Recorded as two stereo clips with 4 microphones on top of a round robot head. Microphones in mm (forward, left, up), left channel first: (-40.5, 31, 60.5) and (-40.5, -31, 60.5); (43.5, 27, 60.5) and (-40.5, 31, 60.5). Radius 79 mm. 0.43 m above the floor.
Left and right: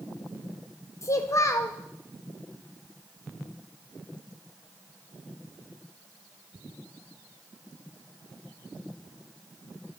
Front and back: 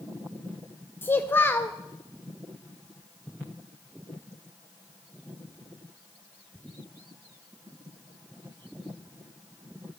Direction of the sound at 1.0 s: 60° left.